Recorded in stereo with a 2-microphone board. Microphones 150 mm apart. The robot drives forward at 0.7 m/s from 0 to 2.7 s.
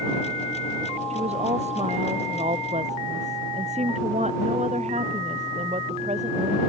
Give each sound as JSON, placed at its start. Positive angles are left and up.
{"t": 1.1, "sound": "a woman speaking", "side_deg": -50}